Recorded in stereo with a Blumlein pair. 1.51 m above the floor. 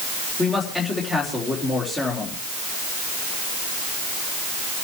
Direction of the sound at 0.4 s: 15° left.